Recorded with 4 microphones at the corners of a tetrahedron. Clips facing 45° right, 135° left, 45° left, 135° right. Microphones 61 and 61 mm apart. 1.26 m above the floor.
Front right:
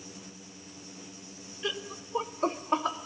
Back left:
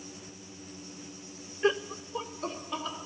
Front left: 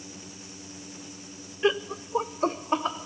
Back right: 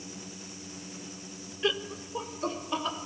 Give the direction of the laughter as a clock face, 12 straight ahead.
9 o'clock.